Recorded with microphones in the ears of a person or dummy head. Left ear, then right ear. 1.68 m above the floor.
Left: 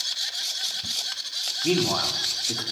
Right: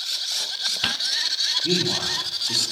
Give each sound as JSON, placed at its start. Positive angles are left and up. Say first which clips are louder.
{"t": 1.6, "sound": "a man speaking", "louder": "right 1 dB", "side_deg": 55, "distance_m": 5.0}